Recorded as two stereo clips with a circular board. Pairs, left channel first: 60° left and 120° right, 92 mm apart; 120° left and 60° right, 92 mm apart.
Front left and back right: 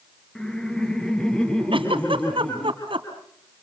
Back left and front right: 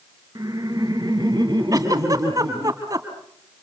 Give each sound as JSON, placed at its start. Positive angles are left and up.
{"t": 0.3, "sound": "laughter", "azimuth_deg": -20, "distance_m": 3.0}
{"t": 1.7, "sound": "a giggle", "azimuth_deg": -105, "distance_m": 3.5}